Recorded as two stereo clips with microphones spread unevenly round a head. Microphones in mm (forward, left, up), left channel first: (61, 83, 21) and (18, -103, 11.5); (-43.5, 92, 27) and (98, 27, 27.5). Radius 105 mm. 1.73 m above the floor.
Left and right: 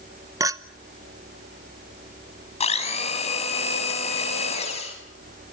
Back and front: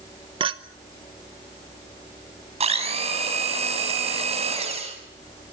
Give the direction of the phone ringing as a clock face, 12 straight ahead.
I don't hear a phone ringing.